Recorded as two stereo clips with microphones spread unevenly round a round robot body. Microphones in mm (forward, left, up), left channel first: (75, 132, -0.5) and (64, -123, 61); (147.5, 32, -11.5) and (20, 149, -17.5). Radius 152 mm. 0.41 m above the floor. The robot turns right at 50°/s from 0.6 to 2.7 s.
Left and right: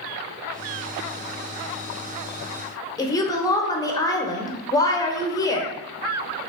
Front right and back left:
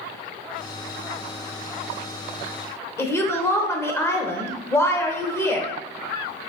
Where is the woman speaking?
30° left, 1.1 m.